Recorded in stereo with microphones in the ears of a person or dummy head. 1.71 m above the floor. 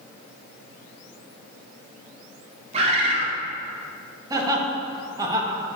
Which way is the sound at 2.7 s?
35° right (ahead or behind).